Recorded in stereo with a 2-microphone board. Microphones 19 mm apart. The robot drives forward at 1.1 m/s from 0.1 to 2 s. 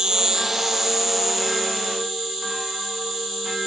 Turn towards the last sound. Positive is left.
turn(degrees=-10)  # may be behind; listen again after turning